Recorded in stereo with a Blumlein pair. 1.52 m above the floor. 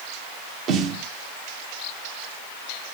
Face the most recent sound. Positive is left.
turn(degrees=-35)